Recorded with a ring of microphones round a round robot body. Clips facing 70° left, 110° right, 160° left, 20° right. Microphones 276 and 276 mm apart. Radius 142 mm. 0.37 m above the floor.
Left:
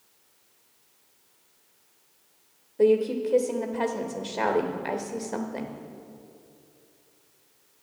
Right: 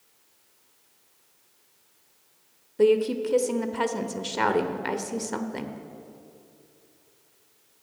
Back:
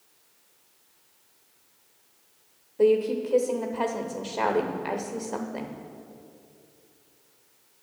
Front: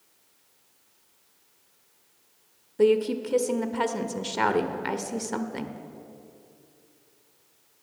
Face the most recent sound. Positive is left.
turn(degrees=-60)